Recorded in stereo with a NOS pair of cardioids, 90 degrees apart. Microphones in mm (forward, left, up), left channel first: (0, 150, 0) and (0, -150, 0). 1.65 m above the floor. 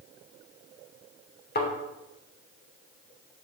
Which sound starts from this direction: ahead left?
A thud, at 1.6 s.